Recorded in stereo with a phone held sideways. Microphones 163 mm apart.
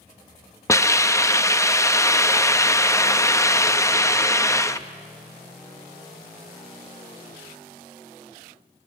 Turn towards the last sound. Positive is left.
turn(degrees=20)  # may be behind; listen again after turning